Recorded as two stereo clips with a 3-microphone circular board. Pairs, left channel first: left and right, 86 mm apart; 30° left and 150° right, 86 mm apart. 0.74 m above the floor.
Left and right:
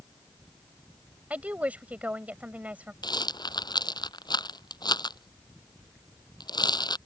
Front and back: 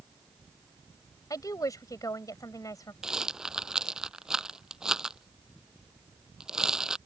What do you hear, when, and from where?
1.3 s a woman speaking: 15° right
3.0 s a rattle: 130° left